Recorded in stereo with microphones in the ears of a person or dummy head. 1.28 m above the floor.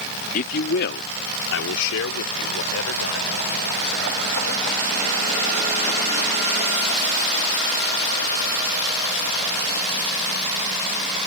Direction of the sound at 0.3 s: 50° left (ahead or behind).